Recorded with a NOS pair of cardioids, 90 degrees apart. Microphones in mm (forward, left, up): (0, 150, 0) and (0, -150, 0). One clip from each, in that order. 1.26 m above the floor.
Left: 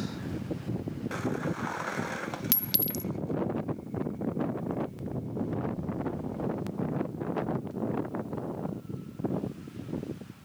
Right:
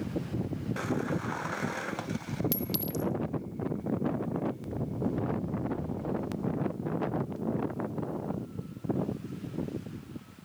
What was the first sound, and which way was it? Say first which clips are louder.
A clink: left 1 dB; 35° left.